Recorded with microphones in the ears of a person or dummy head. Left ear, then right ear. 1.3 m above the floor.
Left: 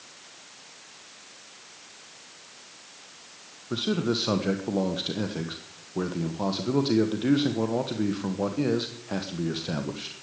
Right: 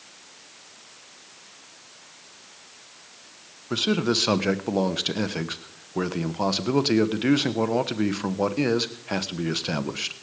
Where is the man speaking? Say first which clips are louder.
Right 4 dB; 50° right (ahead or behind), 1.1 m.